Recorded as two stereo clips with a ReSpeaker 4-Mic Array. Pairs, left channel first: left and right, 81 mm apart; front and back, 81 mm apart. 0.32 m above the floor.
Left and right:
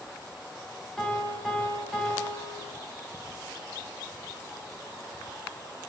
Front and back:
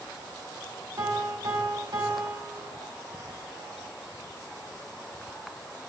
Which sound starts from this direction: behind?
A piano, at 1.0 s.